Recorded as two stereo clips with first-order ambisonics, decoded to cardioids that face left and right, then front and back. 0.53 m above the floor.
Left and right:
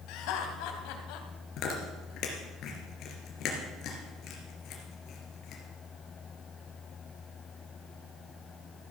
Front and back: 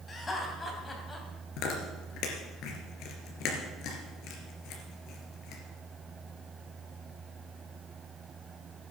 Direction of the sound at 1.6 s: 40° left.